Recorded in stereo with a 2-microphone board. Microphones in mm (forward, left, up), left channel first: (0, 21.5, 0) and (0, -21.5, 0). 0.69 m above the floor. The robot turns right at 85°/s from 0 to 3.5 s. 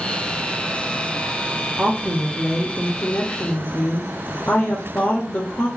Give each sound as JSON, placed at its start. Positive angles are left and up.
{"t": 1.8, "sound": "a woman speaking", "azimuth_deg": -65, "distance_m": 0.7}